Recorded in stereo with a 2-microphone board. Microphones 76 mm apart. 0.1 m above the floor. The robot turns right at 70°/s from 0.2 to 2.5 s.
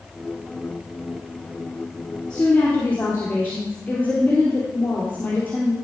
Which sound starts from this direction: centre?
A woman speaking, at 2.3 s.